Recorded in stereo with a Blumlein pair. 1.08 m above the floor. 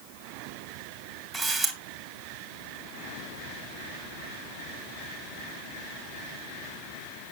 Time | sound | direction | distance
1.3 | a camera shutter | 20° right | 1.9 m